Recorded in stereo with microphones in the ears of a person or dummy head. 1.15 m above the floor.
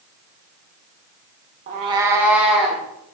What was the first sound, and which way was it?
A cat meowing, 30° right (ahead or behind).